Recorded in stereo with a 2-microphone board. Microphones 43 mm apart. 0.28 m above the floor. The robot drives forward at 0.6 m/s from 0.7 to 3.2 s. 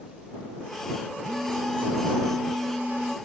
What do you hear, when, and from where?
1.2 s a phone buzzing: 30° right (ahead or behind); by 3.2 s 45° right (ahead or behind)